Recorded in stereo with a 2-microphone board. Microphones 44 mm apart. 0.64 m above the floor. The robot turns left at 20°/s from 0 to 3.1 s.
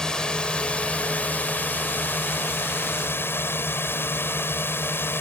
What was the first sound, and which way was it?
A drone, 160° left.